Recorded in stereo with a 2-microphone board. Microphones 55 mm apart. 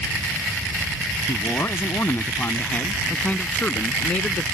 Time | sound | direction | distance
1.3 | a man speaking | 50° left (ahead or behind) | ?